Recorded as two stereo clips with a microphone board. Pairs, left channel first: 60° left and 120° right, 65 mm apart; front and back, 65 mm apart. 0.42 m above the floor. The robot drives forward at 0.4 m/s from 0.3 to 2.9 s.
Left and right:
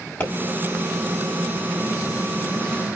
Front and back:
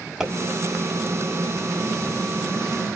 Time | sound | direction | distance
0.2 | a pop | 100° left | 1.7 m